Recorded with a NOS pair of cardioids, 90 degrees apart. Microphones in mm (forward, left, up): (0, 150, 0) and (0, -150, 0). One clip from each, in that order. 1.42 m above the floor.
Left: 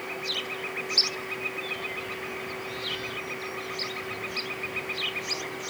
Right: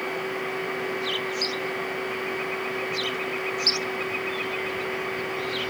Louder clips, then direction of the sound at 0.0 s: Right 3 dB; 55° right.